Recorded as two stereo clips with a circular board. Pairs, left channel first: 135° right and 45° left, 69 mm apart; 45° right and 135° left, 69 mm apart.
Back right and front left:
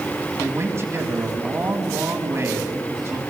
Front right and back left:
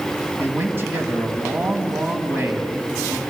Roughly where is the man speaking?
Left.